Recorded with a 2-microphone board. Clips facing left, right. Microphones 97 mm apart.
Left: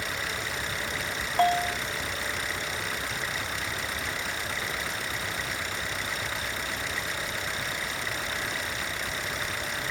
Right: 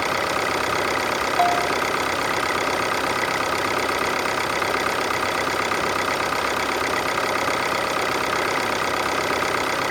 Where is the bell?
10° right (ahead or behind).